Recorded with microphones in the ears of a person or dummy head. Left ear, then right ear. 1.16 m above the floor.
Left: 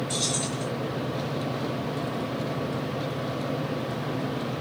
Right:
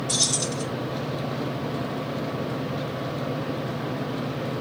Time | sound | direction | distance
0.1 | keys jangling | 80° right | 2.5 m